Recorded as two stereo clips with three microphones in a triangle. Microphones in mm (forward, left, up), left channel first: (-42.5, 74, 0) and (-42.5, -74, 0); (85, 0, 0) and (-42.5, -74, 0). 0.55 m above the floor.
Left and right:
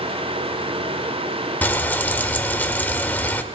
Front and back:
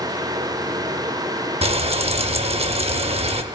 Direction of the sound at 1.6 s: 170° left.